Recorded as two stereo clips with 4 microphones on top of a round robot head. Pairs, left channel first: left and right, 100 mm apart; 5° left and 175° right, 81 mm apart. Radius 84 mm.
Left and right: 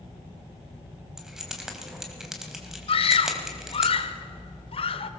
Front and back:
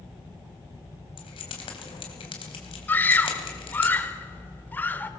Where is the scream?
70° left, 1.8 m.